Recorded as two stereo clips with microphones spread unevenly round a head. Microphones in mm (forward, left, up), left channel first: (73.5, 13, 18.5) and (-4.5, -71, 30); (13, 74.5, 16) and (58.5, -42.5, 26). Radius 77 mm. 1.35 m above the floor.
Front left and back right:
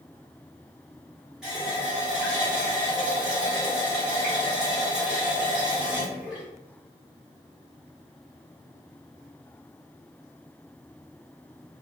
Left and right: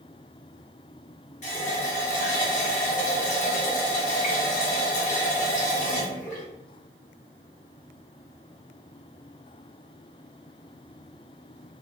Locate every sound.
1.4 s a running tap: 145° left, 0.6 m